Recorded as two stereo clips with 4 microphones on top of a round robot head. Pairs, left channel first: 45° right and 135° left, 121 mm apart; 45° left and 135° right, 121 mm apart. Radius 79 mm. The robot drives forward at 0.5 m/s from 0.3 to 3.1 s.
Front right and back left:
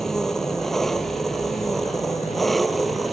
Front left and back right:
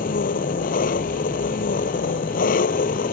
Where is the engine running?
40° left.